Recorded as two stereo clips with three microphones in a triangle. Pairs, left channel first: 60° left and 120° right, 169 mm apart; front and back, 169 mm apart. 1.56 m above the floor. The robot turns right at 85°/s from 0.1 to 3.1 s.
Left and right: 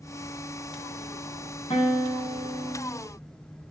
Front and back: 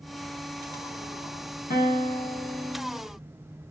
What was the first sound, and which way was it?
A guitar, 10° left.